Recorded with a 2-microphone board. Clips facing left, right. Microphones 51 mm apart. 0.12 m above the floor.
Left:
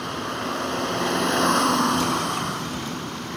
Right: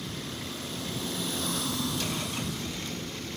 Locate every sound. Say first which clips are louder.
0.0 s a vehicle: left 10 dB; 60° left (ahead or behind)